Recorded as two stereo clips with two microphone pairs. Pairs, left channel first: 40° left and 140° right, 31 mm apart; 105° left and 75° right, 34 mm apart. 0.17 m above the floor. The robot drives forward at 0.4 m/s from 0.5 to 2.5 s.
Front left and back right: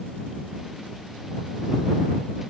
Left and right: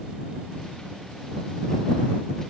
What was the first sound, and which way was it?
Only background noise.